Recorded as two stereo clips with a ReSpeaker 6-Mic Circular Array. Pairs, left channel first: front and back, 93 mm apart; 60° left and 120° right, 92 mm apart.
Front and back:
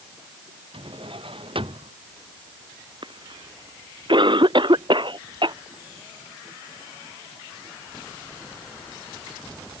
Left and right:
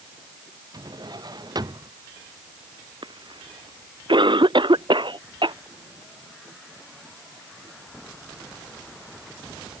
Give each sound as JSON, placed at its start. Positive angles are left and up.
{"t": 0.7, "sound": "a drawer", "azimuth_deg": -165}
{"t": 3.0, "sound": "a cough", "azimuth_deg": -150}